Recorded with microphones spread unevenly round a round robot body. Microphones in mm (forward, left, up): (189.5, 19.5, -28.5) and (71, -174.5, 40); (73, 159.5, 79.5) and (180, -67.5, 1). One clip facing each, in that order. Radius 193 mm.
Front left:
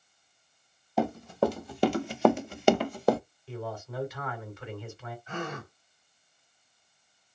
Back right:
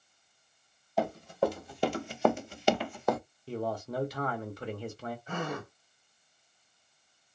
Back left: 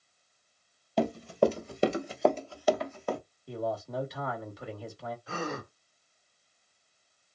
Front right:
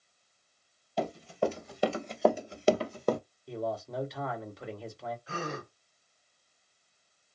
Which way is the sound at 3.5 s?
105° right.